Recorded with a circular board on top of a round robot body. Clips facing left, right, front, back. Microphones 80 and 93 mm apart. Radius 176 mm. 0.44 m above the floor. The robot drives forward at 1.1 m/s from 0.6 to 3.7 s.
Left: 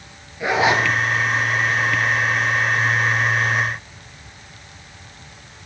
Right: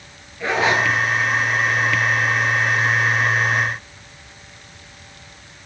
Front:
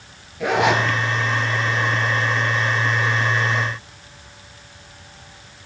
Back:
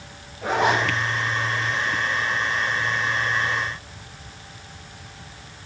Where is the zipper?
15° left, 1.8 m.